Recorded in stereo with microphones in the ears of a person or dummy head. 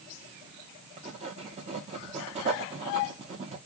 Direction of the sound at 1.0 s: 35° right (ahead or behind).